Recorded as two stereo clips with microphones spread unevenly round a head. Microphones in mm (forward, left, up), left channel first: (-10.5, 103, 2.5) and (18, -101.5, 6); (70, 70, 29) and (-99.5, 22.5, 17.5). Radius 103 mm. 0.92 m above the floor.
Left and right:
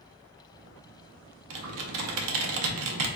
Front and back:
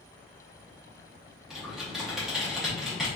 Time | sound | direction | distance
1.5 | typing on a keyboard | 75° right | 0.5 m